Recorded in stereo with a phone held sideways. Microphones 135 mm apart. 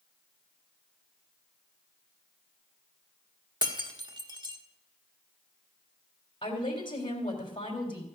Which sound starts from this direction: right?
Breaking glass, at 3.6 s.